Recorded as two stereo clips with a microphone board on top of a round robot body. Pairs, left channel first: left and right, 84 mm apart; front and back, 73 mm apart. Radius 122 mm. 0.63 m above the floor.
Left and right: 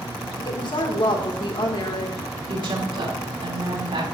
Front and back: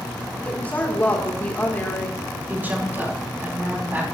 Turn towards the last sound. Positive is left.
turn(degrees=-115)